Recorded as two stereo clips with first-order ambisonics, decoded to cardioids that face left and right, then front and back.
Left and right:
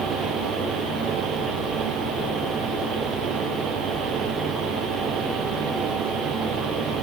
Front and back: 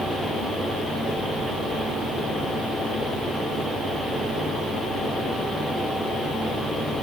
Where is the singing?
I don't hear singing.